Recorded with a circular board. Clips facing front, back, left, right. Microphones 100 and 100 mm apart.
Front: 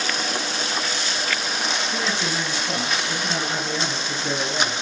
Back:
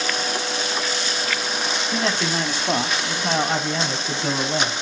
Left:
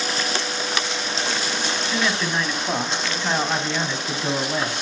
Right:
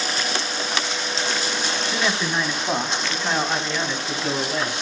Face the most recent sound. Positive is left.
turn(degrees=160)